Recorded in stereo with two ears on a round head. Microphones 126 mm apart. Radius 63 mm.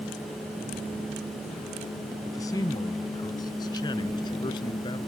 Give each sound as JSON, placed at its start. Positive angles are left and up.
{"t": 2.2, "sound": "a man speaking", "side_deg": 25}